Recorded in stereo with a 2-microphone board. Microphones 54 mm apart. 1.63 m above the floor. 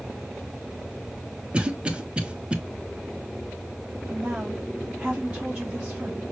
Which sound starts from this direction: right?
A cough, at 1.5 s.